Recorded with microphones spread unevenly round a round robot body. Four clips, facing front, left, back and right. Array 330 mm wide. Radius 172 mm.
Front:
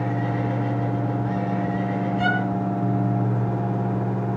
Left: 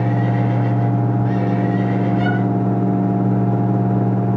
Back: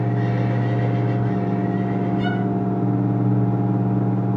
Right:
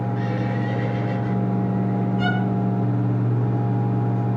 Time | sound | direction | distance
2.2 | a violin | 10° left | 9.5 m